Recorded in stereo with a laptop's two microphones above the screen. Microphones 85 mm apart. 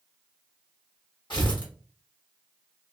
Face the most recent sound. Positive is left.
turn(degrees=60)  # may be behind; listen again after turning